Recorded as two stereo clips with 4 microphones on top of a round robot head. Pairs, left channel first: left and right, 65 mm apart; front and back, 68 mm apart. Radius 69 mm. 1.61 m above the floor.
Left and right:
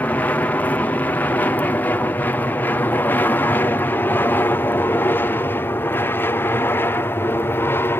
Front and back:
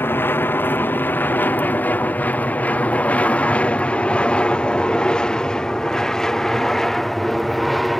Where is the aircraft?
35° left; by 8.0 s 85° left.